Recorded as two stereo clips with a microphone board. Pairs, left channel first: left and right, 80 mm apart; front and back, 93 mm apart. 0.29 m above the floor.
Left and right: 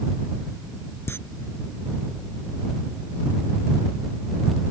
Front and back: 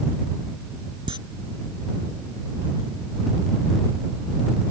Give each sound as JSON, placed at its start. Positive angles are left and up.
{"t": 1.1, "sound": "a camera shutter", "azimuth_deg": 150}